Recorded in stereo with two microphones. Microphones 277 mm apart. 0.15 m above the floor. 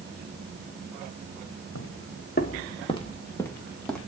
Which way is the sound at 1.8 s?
55° left (ahead or behind).